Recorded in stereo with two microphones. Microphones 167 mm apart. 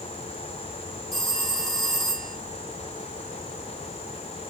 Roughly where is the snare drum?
No snare drum in this recording.